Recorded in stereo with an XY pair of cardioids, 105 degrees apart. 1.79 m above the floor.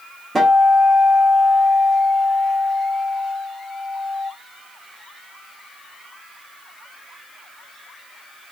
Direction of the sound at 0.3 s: 10° right.